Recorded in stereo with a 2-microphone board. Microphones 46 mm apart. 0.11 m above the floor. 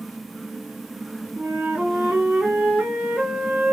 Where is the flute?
25° right (ahead or behind), 1.3 m.